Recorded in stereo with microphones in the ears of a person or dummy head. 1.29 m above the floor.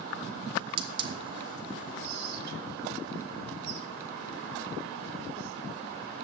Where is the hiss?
25° right (ahead or behind), 0.6 m.